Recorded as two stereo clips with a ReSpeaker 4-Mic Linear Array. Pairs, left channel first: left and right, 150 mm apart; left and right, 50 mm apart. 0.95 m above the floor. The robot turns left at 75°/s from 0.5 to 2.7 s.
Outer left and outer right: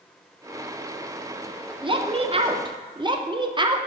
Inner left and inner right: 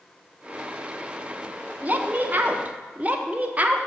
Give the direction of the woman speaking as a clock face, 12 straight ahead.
2 o'clock.